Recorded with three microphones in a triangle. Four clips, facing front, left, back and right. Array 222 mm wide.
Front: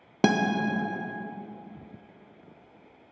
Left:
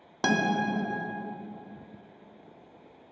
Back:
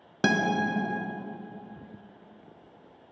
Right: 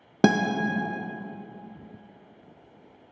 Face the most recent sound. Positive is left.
turn(degrees=-75)